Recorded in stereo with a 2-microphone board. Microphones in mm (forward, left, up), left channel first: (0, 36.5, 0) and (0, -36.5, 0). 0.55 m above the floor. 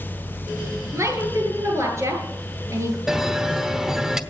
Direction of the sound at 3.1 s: 10° right (ahead or behind).